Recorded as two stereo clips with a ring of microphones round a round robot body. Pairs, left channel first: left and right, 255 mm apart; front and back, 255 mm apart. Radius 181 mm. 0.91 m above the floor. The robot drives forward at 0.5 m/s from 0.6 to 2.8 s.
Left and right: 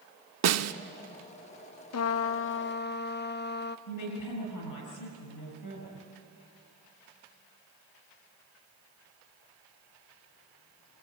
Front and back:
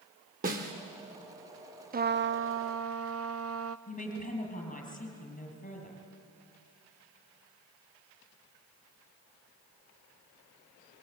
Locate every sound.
0.4 s a snare drum: 115° right, 1.0 m
1.9 s a trumpet: 120° left, 0.6 m; by 3.8 s 145° left, 0.9 m
3.9 s a woman speaking: 60° left, 7.5 m